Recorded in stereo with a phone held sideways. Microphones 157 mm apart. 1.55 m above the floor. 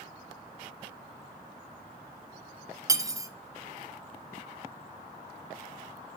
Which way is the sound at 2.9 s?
20° right (ahead or behind).